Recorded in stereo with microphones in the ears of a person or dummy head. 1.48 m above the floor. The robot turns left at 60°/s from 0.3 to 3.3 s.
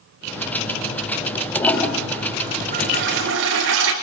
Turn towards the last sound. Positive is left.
turn(degrees=-90)